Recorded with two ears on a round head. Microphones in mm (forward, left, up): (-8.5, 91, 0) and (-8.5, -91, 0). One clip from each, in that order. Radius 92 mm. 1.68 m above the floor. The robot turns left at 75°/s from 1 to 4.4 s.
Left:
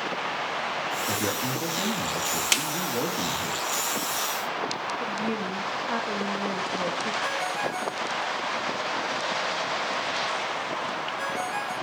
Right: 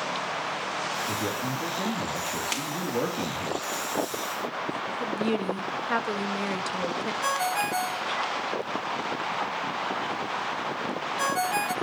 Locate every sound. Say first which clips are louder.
1.1 s a man speaking: left 2 dB; 95° left, 3.5 m; by 3.5 s 85° right, 3.5 m
2.5 s a snare drum: left 6 dB; 40° left (ahead or behind), 1.6 m; by 2.7 s 50° left (ahead or behind), 1.6 m
5.0 s a woman speaking: right 1 dB; 40° right (ahead or behind), 2.0 m
7.2 s a ringtone: right 1 dB; 40° right (ahead or behind), 2 m